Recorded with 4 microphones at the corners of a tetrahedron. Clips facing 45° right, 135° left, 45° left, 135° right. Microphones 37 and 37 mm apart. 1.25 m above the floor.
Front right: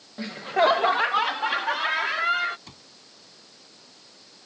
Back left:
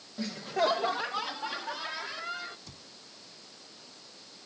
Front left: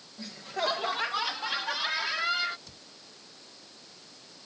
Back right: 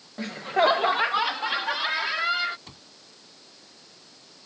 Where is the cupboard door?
85° right.